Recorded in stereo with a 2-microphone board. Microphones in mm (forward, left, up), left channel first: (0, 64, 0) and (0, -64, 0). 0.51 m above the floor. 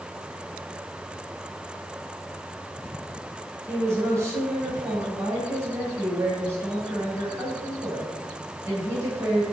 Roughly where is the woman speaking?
Right.